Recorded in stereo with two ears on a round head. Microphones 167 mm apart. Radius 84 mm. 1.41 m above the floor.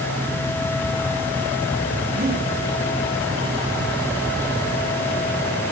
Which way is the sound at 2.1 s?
55° right (ahead or behind).